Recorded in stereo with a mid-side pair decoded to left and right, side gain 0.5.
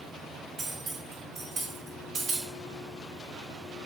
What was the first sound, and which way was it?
Cutlery clinking, 60° right.